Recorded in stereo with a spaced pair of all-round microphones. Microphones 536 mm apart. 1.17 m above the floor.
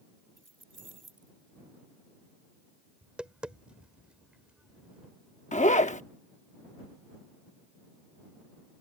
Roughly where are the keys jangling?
Right.